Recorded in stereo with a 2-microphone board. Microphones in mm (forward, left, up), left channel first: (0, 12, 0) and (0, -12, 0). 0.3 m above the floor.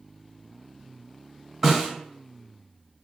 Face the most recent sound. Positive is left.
turn(degrees=-10)  # may be behind; listen again after turning